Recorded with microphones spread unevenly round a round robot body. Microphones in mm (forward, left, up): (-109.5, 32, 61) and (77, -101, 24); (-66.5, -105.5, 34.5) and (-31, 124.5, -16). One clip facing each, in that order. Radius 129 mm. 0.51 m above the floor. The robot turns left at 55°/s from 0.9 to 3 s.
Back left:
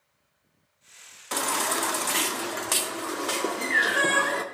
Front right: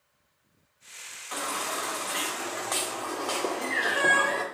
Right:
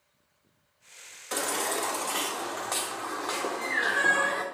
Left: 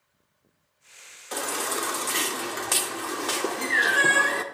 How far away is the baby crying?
About 0.7 m.